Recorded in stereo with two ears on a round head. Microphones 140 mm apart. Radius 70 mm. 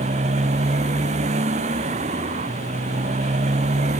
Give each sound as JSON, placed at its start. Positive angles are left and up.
{"t": 0.0, "sound": "a motorcycle", "side_deg": -45}